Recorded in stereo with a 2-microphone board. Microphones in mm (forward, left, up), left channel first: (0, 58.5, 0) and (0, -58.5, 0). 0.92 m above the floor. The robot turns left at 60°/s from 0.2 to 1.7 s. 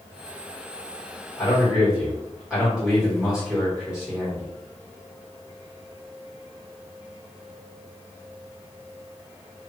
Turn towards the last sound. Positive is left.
turn(degrees=-5)  # may be behind; listen again after turning